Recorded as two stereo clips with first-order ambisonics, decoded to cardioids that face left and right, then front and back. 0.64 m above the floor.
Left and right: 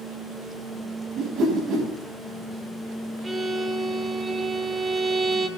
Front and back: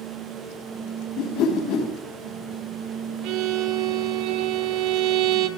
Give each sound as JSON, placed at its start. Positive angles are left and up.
{"t": 1.1, "sound": "a whoosh", "azimuth_deg": -40, "distance_m": 5.0}
{"t": 3.2, "sound": "a violin", "azimuth_deg": -165, "distance_m": 1.7}